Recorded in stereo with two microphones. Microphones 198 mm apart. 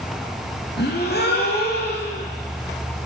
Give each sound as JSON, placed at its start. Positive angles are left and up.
{"t": 0.8, "sound": "a gasp", "side_deg": 55, "distance_m": 3.0}